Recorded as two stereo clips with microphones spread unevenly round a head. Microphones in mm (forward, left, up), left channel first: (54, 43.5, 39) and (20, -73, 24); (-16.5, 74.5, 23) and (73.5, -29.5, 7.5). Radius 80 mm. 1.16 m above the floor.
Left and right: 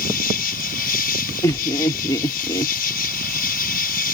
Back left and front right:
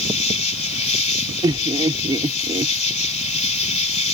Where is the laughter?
15° left.